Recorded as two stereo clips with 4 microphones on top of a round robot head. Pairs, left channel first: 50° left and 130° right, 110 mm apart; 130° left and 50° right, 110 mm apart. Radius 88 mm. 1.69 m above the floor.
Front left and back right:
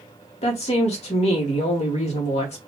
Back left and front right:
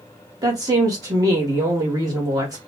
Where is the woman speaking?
10° left, 1.6 m.